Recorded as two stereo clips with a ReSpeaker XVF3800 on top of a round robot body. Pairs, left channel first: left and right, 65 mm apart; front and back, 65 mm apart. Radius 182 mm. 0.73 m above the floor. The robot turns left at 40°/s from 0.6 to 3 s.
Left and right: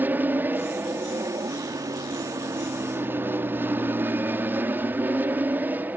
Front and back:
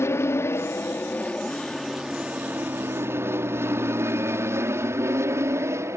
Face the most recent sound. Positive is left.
turn(degrees=-145)